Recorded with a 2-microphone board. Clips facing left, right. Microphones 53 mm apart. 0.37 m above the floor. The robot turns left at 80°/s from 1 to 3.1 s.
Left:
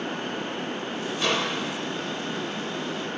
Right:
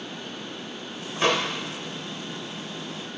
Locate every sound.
1.2 s a microwave: 40° right (ahead or behind), 1.3 m; by 1.5 s 45° right (ahead or behind), 1.3 m